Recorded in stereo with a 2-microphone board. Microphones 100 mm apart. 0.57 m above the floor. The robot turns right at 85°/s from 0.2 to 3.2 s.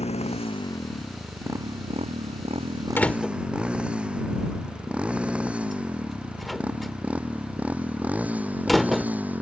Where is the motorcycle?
80° left; by 9.4 s 15° right (ahead or behind).